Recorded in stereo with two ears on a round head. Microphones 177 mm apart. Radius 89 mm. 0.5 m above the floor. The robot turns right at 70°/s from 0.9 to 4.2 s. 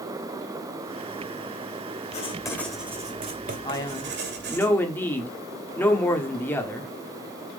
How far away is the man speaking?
About 1.0 m.